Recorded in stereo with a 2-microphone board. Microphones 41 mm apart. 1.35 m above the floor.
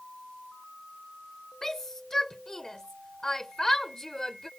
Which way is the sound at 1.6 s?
15° left (ahead or behind).